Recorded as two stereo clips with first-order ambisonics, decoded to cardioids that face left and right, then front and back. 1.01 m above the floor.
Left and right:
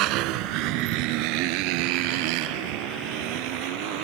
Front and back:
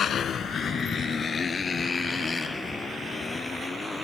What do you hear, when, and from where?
0.0 s a motorcycle: 60° right; by 4.0 s 80° right